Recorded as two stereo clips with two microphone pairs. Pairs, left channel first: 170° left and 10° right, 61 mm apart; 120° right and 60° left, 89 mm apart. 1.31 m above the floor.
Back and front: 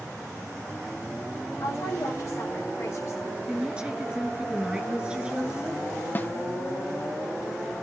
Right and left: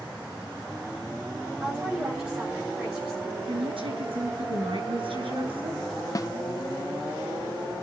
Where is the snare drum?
145° right, 0.7 m.